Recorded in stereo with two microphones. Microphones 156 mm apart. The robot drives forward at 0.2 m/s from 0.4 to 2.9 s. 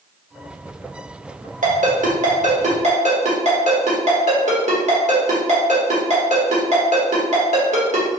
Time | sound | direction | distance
1.6 | a ringtone | 60° right (ahead or behind) | 1.1 m